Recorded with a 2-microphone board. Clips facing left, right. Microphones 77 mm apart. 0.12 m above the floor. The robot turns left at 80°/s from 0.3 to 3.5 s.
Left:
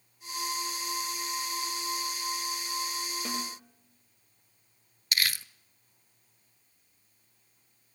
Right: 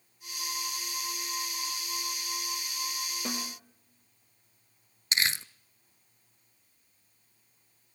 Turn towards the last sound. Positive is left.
turn(degrees=-25)  # may be behind; listen again after turning